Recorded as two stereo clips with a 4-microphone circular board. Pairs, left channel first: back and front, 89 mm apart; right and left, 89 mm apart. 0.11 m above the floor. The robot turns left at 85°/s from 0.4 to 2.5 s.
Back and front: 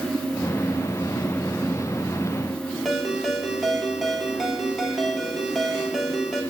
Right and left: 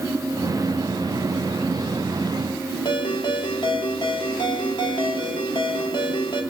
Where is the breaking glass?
No breaking glass in this recording.